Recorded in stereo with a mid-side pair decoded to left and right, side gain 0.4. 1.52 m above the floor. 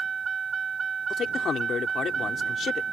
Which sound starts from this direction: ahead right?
A vehicle, at 0.0 s.